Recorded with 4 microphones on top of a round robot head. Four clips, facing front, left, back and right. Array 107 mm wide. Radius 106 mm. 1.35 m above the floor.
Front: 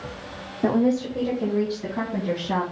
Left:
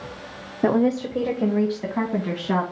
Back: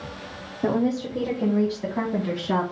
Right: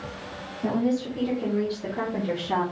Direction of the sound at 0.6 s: 85° left.